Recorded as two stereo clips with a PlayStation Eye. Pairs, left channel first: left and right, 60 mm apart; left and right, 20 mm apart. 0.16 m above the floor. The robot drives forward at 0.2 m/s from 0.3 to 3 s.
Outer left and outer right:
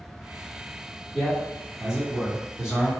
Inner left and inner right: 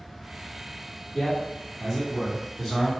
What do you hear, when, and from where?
1.1 s a man speaking: 10° right (ahead or behind), 1.7 m